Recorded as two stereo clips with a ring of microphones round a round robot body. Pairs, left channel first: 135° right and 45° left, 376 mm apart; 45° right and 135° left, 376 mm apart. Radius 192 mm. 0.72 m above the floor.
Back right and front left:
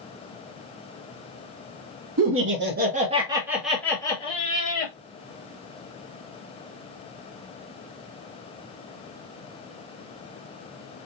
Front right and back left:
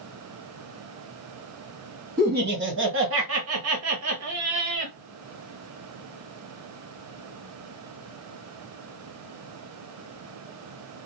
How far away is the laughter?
About 1.3 m.